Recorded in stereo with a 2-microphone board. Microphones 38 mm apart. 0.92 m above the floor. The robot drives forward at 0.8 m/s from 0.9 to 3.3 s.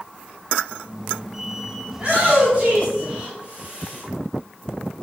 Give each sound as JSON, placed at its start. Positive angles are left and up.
{"t": 1.9, "sound": "a shout", "side_deg": -30, "distance_m": 5.0}